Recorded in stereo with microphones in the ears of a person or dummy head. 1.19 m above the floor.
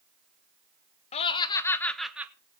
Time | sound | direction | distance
1.1 | laughter | 30° left (ahead or behind) | 1.4 m